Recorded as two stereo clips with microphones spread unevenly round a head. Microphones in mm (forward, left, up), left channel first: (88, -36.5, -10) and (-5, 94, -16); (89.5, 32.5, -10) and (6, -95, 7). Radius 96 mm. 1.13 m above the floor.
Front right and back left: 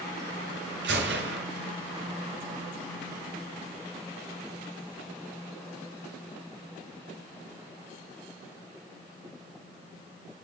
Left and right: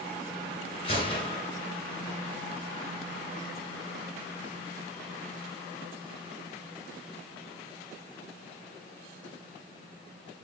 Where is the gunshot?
120° left, 3 m.